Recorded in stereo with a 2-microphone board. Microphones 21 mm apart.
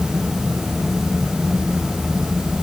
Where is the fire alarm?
I don't hear a fire alarm.